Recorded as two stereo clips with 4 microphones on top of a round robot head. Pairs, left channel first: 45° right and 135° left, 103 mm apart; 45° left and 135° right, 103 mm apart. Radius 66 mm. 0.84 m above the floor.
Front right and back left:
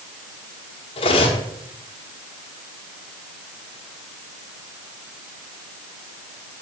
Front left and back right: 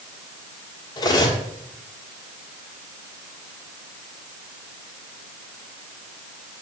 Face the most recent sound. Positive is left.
turn(degrees=-10)